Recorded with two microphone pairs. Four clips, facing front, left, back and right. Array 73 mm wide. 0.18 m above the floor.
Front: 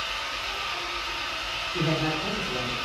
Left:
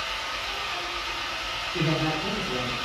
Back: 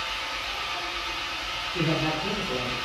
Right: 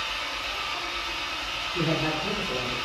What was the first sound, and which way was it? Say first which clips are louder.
An engine running: even, even; 40° left.